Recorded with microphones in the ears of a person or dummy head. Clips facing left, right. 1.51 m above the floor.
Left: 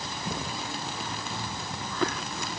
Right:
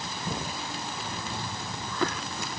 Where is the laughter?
No laughter in this recording.